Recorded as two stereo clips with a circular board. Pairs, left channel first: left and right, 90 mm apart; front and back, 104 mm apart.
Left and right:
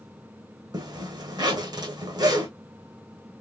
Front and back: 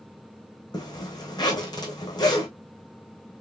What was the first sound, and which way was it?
A zipper, 50° right.